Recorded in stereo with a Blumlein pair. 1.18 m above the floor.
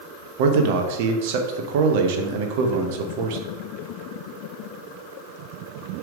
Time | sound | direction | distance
0.4 | a man speaking | 50° right | 0.9 m